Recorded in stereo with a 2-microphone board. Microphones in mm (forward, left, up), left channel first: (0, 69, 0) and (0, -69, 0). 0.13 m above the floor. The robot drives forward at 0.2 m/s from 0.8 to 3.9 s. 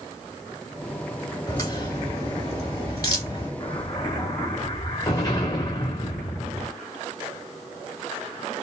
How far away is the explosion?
About 2.5 m.